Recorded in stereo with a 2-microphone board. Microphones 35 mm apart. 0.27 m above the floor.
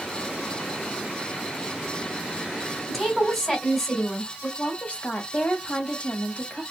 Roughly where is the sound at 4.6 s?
Left.